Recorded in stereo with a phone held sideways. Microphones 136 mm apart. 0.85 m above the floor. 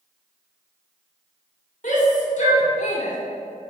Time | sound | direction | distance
1.8 | a shout | 65° left (ahead or behind) | 2 m